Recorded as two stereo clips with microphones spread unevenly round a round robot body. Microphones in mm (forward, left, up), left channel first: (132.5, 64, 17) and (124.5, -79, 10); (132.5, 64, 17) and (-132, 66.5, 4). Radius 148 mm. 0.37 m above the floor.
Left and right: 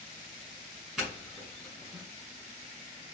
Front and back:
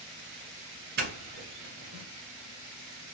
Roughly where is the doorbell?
Behind.